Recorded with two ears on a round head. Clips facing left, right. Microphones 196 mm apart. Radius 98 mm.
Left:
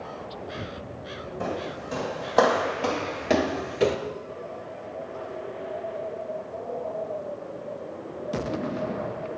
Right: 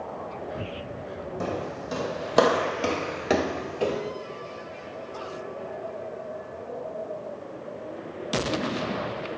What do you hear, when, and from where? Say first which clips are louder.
1.4 s footsteps: even; 45° right (ahead or behind), 3 m; by 4.0 s 35° left (ahead or behind), 1.1 m